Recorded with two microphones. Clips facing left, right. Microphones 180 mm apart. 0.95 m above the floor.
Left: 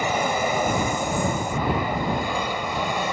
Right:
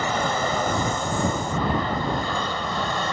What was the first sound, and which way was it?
An aircraft, 10° left (ahead or behind).